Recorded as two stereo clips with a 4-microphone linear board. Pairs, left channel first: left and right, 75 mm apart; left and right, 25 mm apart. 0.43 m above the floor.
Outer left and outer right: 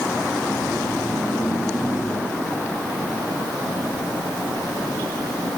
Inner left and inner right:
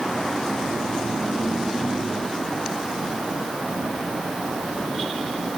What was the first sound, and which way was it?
Only background noise.